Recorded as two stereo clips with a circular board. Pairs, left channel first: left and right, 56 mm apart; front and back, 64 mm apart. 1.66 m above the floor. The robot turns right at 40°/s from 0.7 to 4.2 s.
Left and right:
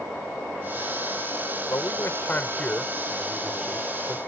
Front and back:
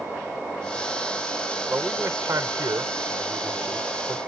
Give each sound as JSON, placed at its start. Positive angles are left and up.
{"t": 1.7, "sound": "a man speaking", "azimuth_deg": 120}